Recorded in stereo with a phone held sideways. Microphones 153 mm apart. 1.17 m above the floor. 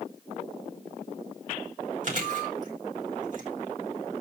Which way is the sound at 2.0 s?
55° right (ahead or behind).